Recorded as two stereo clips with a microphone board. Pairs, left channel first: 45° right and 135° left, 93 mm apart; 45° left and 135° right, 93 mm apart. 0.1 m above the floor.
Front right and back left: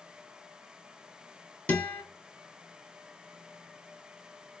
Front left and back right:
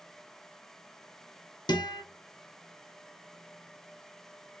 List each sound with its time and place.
1.7 s a guitar: 25° left, 1.1 m